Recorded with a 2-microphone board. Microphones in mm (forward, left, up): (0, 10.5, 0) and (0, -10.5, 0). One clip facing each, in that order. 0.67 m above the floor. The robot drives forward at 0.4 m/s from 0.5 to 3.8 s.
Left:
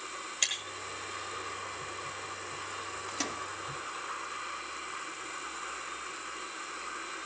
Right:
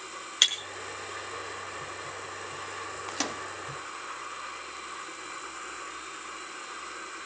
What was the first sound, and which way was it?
Breaking glass, 85° right.